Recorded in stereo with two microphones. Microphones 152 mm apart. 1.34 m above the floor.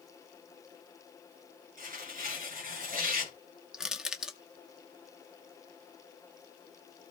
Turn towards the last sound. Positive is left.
turn(degrees=-5)  # may be behind; listen again after turning